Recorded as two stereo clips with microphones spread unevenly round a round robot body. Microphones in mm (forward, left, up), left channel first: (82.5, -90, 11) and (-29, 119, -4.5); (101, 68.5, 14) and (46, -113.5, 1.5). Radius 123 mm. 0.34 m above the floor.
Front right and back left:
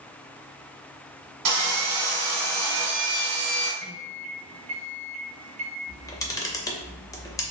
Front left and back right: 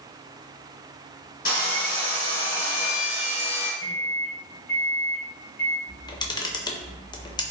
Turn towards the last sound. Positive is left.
turn(degrees=10)